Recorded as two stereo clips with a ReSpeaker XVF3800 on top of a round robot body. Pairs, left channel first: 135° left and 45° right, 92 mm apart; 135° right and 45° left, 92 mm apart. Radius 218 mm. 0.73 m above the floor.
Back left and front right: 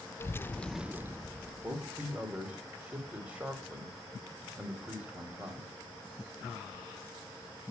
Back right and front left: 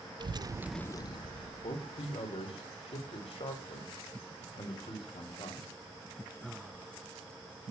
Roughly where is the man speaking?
Behind right.